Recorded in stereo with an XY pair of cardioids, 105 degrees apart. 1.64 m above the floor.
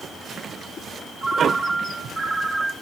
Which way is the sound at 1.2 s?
25° right.